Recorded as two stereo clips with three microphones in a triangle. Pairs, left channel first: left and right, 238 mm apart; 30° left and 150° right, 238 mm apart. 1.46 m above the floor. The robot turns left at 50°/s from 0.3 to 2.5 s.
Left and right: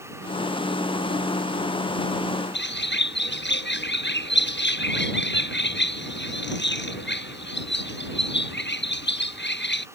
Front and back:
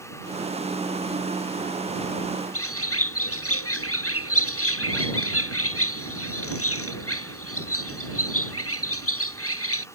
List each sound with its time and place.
2.5 s a bird: 50° left